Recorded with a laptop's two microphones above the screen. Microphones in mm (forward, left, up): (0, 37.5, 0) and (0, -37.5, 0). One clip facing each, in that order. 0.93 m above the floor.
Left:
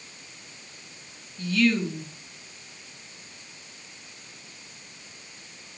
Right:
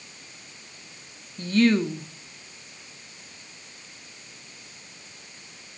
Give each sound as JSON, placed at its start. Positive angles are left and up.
{"t": 1.4, "sound": "a woman speaking", "side_deg": -40, "distance_m": 2.0}